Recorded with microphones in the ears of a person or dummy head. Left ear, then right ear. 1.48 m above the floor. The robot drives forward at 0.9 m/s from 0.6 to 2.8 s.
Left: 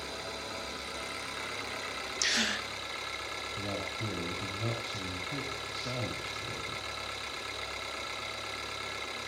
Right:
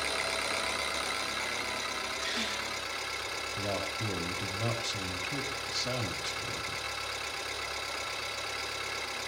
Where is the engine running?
30° right (ahead or behind), 0.9 m; by 9.3 s 10° right (ahead or behind), 2.5 m.